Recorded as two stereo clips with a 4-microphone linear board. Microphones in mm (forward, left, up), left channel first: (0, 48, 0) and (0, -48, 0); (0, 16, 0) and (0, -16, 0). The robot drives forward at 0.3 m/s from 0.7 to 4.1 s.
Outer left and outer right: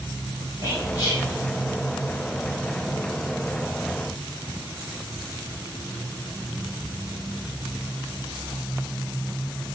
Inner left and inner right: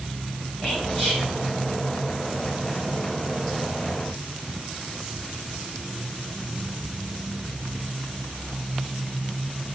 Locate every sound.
0.6 s whispering: 25° left (ahead or behind), 1.7 m; by 1.2 s 30° left (ahead or behind), 1.6 m